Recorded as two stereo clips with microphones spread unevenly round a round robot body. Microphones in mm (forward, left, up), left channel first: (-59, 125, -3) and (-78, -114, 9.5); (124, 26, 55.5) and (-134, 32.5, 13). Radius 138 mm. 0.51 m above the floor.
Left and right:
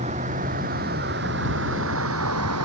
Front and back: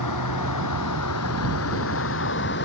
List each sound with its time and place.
0.0 s a vehicle: 25° right; by 2.6 s 55° right